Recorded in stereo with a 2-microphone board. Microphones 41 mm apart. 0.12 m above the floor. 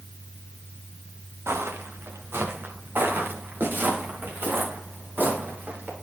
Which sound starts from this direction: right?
Footsteps, at 1.5 s.